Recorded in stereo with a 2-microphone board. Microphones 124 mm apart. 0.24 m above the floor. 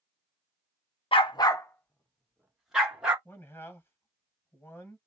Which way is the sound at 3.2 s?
20° left (ahead or behind).